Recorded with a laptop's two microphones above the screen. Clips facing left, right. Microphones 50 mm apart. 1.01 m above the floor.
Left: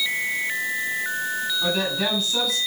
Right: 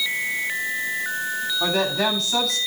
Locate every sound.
1.6 s a woman speaking: 75° right (ahead or behind), 7.5 m